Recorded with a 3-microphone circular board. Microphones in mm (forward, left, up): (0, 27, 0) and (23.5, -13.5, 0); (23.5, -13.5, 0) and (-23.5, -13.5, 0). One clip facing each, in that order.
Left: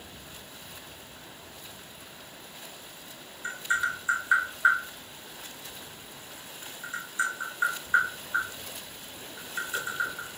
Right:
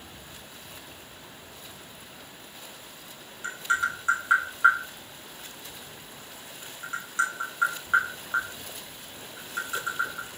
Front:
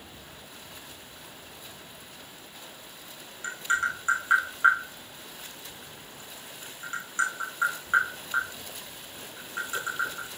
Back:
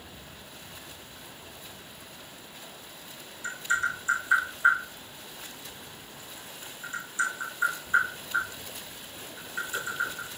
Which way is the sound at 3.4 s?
40° right.